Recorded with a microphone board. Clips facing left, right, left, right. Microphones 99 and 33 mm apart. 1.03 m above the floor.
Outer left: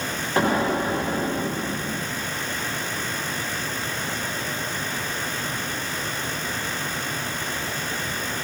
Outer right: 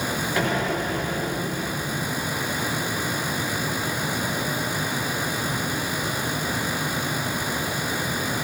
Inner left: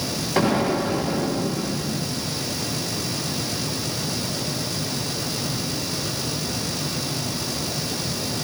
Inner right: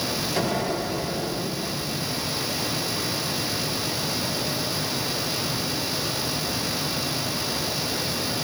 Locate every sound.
0.4 s an explosion: 35° left (ahead or behind), 1.2 m